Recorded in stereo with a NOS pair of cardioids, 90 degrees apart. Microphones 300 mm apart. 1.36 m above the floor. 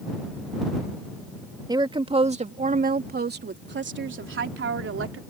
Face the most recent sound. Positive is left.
turn(degrees=-50)